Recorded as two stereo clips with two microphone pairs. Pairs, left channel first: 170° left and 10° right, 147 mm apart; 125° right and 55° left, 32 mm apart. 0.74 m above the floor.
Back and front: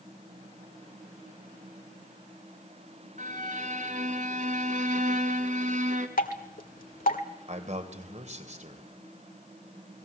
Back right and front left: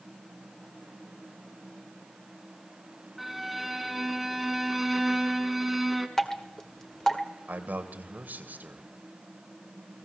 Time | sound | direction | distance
3.2 | a violin | 35° right | 1.6 m
6.2 | dripping | 155° left | 1.8 m
7.5 | a man speaking | 30° left | 3 m